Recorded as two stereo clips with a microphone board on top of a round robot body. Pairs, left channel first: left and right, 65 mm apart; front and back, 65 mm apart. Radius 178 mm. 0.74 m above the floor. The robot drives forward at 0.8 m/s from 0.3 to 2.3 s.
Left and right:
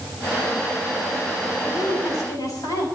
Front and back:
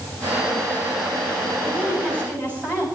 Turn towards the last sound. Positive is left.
turn(degrees=120)